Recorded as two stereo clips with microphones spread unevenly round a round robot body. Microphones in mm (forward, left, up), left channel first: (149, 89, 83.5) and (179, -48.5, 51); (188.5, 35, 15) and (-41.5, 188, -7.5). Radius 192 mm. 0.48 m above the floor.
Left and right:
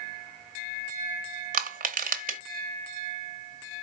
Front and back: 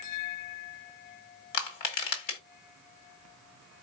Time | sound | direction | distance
1.5 | crushing | 65° right | 1.4 m